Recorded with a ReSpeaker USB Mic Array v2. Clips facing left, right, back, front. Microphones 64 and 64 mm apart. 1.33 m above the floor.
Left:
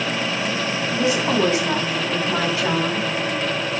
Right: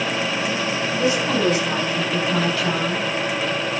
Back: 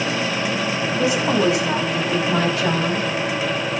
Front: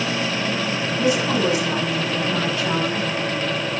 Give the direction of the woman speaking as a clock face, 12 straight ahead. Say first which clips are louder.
Left 1 dB, even; 7 o'clock.